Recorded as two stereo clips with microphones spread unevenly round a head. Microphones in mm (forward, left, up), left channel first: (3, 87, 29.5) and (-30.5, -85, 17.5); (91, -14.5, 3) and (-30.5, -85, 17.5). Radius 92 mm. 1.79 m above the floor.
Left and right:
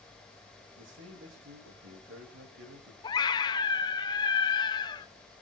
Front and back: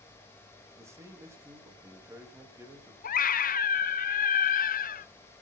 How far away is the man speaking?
About 4 m.